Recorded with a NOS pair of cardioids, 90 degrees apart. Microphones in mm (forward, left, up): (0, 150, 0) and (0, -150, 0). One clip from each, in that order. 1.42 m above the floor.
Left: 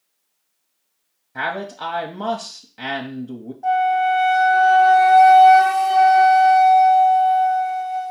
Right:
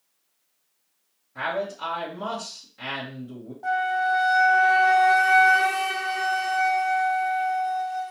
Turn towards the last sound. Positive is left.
turn(degrees=0)